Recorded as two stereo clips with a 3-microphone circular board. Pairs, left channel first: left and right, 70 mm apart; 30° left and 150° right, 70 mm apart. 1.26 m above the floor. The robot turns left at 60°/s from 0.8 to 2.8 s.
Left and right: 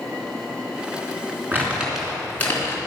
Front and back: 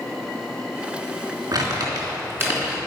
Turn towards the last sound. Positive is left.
turn(degrees=130)